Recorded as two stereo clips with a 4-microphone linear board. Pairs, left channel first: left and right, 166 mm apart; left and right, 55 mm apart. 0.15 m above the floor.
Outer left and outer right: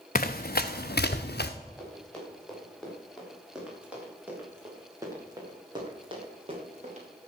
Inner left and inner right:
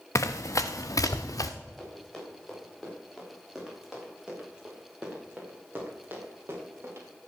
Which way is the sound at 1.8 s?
5° left (ahead or behind).